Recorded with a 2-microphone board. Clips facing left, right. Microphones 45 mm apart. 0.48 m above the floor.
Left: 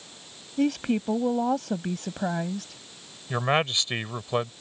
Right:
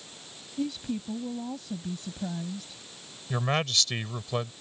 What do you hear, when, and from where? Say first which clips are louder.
0.6 s a woman speaking: left 7 dB; 65° left (ahead or behind)
3.3 s a man speaking: left 4 dB; 25° left (ahead or behind)